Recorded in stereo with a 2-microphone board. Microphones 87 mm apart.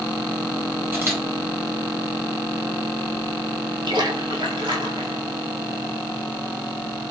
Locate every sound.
0.9 s a camera shutter: 25° right (ahead or behind), 1.5 m
3.9 s a splash: 65° right (ahead or behind), 0.7 m